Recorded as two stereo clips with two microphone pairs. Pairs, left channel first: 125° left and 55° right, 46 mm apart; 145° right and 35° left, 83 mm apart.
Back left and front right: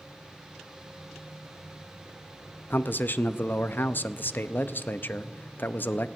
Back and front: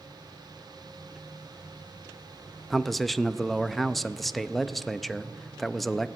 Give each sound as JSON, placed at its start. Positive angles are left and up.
{"t": 2.7, "sound": "a man speaking", "azimuth_deg": 125, "distance_m": 0.6}